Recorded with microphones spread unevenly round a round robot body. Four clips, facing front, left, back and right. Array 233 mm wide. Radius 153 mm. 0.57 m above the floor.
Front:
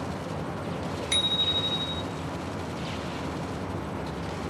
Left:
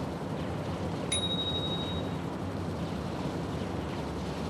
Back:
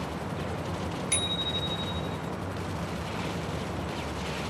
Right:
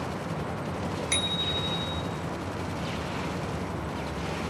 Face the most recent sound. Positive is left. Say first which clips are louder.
# right 2 dB, front 1 dB
turn(degrees=-65)